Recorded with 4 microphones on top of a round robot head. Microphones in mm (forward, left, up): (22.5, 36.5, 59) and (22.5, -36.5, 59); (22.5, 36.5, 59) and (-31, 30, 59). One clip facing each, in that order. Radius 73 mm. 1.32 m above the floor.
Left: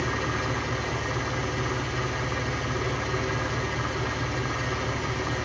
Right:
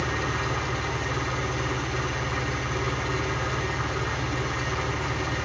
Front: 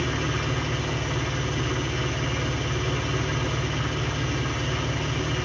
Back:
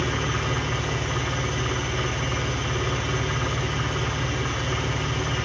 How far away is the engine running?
About 7 m.